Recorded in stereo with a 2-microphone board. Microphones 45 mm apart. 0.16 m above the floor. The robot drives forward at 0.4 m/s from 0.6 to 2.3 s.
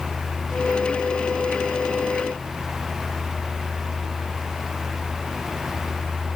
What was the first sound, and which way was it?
Only background noise.